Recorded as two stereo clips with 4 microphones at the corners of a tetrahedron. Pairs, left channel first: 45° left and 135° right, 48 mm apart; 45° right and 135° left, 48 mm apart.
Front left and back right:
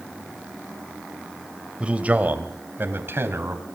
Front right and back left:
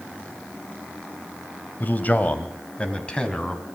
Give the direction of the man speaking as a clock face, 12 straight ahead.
2 o'clock.